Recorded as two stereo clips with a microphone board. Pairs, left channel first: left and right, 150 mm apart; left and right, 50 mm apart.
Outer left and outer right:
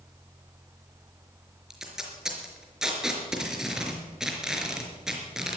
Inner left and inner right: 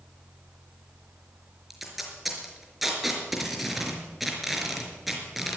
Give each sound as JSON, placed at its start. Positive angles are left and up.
{"t": 1.7, "sound": "tape being pulled", "side_deg": -5, "distance_m": 4.5}